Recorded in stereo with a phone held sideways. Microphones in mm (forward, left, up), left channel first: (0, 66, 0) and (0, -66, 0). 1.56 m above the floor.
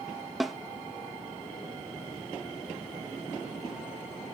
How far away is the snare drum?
About 0.5 m.